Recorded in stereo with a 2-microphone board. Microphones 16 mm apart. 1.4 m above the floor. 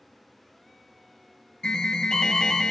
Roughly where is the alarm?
Left.